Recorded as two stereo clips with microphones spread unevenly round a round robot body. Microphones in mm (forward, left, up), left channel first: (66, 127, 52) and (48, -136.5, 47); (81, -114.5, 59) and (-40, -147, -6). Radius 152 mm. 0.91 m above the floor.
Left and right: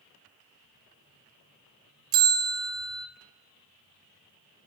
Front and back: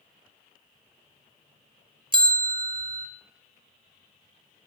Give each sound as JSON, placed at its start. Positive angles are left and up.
{"t": 2.1, "sound": "a bell", "azimuth_deg": -100, "distance_m": 1.8}